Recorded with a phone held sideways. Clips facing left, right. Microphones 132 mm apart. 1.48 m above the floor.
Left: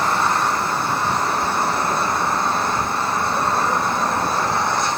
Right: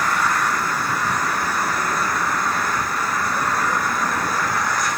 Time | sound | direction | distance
0.0 | an engine running | 25° left (ahead or behind) | ?